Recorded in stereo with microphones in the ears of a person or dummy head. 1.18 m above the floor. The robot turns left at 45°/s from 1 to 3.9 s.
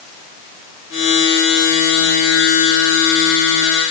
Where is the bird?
No bird in this recording.